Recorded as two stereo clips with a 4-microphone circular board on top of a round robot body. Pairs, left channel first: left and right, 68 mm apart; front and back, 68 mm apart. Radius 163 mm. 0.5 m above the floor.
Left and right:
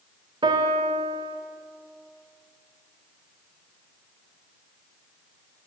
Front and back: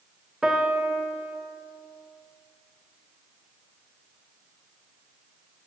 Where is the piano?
100° right, 0.5 m.